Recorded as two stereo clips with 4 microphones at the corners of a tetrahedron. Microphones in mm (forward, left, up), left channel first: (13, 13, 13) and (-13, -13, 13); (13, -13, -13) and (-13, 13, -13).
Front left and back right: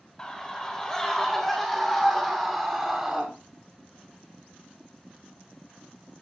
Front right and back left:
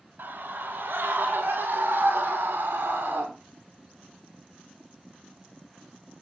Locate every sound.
0.2 s a scream: 115° left, 3 m; by 3.3 s 150° left, 2 m